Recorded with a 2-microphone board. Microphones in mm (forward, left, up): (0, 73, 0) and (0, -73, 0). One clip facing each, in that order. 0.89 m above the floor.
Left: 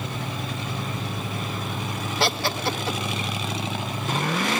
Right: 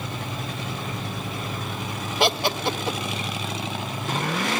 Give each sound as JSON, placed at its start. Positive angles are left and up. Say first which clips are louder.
{"t": 2.2, "sound": "laughter", "louder": "right 3 dB", "side_deg": -20, "distance_m": 0.6}